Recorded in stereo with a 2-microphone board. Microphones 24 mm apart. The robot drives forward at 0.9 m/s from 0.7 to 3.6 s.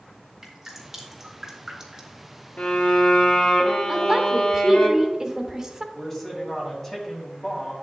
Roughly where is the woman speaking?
Right.